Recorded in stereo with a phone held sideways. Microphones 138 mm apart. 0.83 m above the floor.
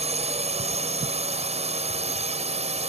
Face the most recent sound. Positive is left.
turn(degrees=-50)  # may be behind; listen again after turning